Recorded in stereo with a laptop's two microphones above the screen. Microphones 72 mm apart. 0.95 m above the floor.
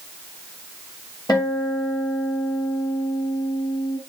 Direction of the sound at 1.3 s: 65° left (ahead or behind).